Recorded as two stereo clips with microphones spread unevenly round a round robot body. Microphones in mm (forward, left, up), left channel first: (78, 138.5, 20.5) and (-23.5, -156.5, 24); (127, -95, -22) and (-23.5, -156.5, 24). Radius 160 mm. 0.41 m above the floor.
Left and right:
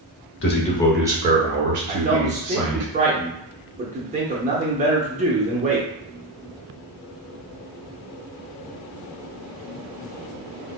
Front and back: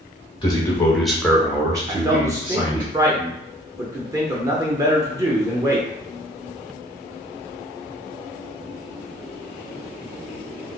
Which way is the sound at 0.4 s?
45° left.